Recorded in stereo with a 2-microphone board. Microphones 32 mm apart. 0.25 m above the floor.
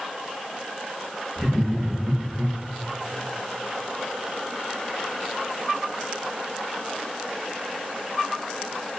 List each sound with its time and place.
1.4 s laughter: 20° right (ahead or behind), 4 m